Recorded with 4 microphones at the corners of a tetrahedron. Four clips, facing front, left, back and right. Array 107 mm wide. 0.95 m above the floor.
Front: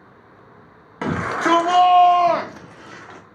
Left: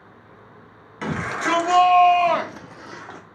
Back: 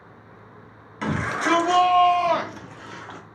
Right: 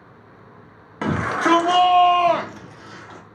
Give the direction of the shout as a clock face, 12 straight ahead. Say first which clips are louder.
Right 5 dB, front 4 dB; 1 o'clock.